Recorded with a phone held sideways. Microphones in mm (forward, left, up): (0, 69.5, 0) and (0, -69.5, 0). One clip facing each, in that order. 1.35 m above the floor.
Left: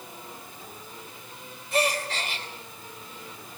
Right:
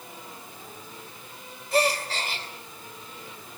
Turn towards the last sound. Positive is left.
turn(degrees=-35)  # may be behind; listen again after turning